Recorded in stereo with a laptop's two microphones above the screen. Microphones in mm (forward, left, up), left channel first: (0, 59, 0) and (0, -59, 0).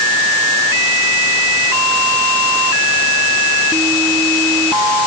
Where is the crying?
I don't hear crying.